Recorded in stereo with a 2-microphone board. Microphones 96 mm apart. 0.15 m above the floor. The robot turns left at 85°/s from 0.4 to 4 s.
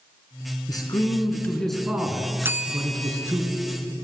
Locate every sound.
0.7 s a man speaking: 90° left, 1.8 m; by 3.4 s 145° right, 1.8 m
2.4 s a bell: 140° right, 0.7 m; by 3.3 s 140° left, 0.7 m